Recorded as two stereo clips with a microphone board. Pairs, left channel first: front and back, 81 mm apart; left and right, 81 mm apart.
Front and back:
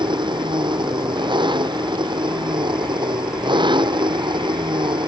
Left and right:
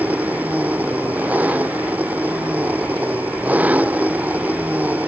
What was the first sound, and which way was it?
An engine running, 160° right.